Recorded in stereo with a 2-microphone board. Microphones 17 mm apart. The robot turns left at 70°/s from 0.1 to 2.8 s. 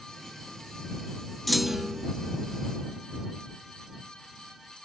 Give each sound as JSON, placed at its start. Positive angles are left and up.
{"t": 1.5, "sound": "a clunk", "azimuth_deg": 5}